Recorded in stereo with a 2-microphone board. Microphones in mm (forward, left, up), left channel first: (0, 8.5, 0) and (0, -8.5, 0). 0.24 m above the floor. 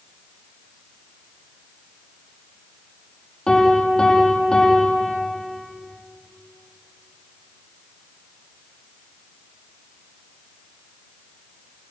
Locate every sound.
3.5 s a piano: 40° left (ahead or behind), 5.5 m